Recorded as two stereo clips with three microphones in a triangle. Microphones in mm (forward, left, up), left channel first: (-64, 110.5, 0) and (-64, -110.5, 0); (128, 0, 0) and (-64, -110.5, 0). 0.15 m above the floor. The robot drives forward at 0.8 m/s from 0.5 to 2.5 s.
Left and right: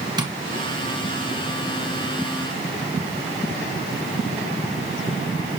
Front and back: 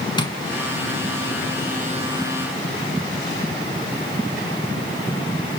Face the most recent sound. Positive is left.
turn(degrees=-150)